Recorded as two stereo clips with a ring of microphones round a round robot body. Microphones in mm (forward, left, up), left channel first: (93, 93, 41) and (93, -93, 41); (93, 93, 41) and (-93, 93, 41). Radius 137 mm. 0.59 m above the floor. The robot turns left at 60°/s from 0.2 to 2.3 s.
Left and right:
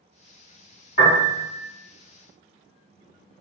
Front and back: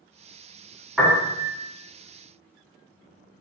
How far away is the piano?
About 1.8 m.